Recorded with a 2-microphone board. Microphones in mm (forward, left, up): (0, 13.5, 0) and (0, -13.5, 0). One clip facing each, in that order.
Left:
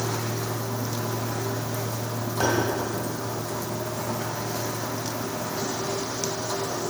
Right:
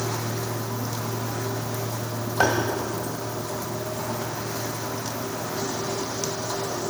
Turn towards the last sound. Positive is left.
turn(degrees=-50)  # may be behind; listen again after turning